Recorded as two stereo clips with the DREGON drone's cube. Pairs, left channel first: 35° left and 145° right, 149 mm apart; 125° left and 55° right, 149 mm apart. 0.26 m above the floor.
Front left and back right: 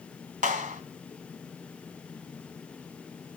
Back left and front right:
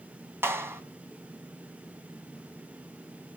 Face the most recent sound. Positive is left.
turn(degrees=-130)